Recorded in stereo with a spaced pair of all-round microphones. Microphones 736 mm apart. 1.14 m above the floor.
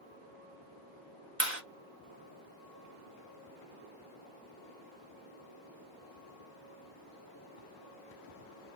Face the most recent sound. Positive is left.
turn(degrees=-15)  # may be behind; listen again after turning